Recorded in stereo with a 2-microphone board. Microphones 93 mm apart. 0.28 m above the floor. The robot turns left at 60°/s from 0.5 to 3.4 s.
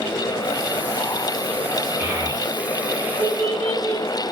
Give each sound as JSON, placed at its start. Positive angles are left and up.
{"t": 2.0, "sound": "a child speaking", "side_deg": -20, "distance_m": 1.5}